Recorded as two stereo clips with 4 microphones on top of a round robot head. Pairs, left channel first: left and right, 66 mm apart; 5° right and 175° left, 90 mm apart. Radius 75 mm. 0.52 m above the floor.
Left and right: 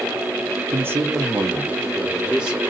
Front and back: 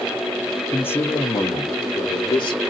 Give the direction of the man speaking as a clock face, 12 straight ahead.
2 o'clock.